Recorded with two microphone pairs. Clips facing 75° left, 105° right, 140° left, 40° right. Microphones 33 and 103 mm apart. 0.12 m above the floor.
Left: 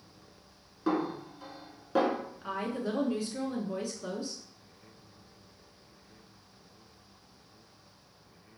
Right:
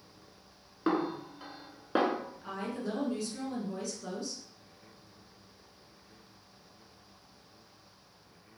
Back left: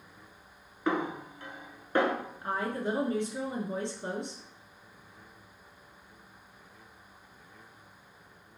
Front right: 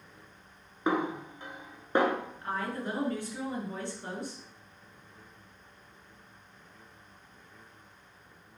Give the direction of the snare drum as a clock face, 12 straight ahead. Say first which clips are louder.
Even, front right 1 dB; 3 o'clock.